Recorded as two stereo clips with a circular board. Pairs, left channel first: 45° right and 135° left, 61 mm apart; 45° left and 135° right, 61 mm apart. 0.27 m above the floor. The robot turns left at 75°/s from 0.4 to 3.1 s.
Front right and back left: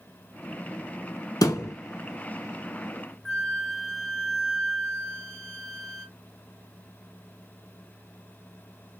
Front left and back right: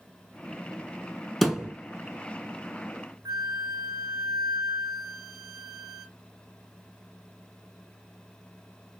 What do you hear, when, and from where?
1.4 s a thud: 40° right, 1.0 m; by 1.8 s 65° right, 1.0 m
3.2 s a flute: 130° right, 1.6 m